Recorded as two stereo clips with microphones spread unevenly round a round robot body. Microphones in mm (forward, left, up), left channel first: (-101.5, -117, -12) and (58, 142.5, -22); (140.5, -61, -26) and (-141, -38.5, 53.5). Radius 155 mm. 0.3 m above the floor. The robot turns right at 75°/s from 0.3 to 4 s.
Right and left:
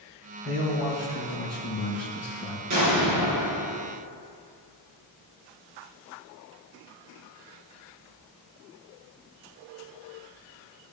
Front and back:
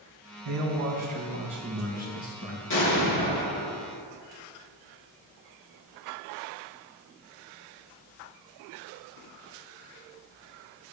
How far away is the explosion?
About 3 m.